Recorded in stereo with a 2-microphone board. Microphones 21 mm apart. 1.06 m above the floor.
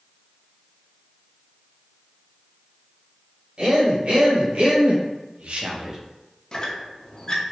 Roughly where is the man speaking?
Right.